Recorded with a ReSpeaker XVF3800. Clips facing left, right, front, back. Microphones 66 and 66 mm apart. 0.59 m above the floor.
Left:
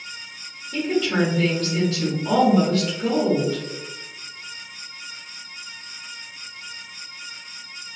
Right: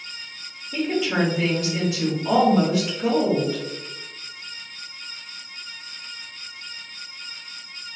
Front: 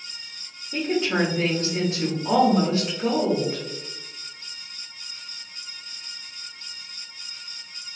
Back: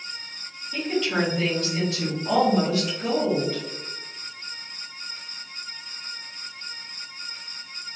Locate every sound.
0.7 s a woman speaking: 25° right, 1.2 m